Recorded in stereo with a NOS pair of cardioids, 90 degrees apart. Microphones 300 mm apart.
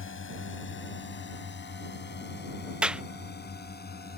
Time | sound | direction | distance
0.0 | a drone | 40° left | ?
2.8 | a clap | 5° right | ?